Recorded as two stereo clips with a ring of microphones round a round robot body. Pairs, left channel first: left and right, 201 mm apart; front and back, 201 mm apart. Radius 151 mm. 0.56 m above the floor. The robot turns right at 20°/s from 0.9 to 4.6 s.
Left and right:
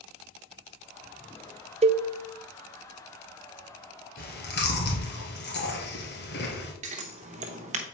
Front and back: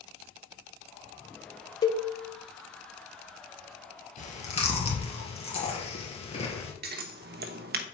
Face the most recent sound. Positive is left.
turn(degrees=-145)